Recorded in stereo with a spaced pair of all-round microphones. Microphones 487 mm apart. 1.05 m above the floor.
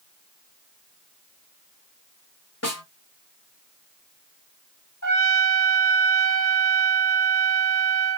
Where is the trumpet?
40° left (ahead or behind), 1.6 m.